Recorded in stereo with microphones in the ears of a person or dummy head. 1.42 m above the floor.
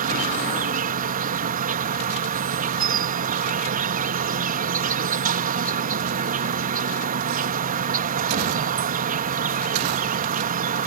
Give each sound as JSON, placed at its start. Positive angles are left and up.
{"t": 0.0, "sound": "an insect", "side_deg": -55}